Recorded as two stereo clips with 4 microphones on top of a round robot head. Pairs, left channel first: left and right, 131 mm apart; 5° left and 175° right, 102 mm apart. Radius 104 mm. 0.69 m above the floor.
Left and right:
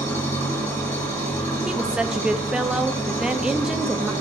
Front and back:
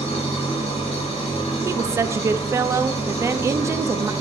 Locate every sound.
0.0 s an engine running: 25° left, 3 m
1.6 s a woman speaking: 165° right, 0.5 m